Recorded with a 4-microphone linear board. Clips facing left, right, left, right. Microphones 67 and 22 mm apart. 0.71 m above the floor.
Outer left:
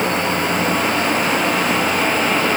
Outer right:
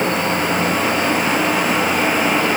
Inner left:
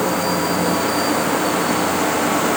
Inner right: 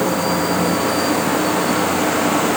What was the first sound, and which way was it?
Only background noise.